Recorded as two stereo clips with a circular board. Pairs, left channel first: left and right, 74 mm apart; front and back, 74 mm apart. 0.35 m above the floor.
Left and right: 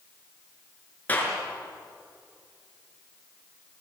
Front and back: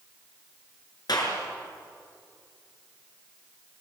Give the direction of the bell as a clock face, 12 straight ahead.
No bell in this recording.